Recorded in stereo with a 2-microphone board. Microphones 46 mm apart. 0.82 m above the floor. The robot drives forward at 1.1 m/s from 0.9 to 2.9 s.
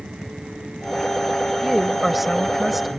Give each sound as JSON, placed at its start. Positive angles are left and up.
{"t": 1.6, "sound": "a woman speaking", "side_deg": 0}